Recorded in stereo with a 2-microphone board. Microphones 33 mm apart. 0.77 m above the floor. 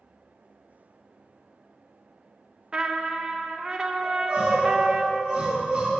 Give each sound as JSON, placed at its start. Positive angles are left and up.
{"t": 2.7, "sound": "a trumpet", "side_deg": -25, "distance_m": 0.6}
{"t": 4.0, "sound": "crying", "side_deg": -45, "distance_m": 2.5}